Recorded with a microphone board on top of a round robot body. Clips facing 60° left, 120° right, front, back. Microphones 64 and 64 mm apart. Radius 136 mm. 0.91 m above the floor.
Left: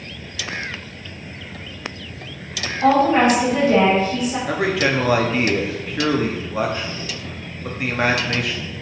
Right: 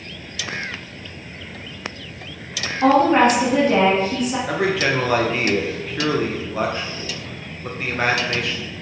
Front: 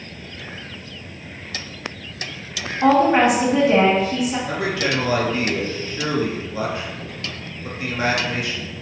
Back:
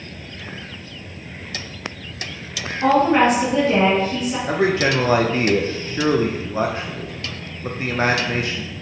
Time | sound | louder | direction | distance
2.8 | a woman speaking | right 1 dB, even | 80° right | 1.8 m
4.5 | a man speaking | left 1 dB, back 4 dB | 145° left | 0.6 m